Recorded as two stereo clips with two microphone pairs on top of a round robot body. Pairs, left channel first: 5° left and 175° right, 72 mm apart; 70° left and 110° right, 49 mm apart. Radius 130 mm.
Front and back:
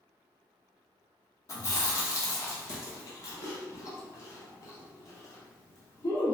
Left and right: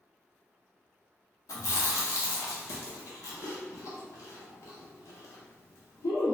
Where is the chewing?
55° left, 0.6 m.